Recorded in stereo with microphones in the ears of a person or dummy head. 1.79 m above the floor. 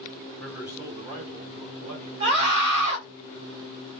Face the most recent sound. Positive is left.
turn(degrees=-35)  # may be behind; listen again after turning